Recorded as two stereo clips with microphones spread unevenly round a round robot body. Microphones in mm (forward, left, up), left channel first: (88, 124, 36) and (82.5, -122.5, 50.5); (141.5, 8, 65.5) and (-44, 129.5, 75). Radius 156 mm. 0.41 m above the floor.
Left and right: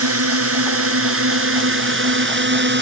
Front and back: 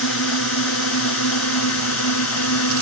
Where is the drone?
65° right; by 2.8 s 50° right.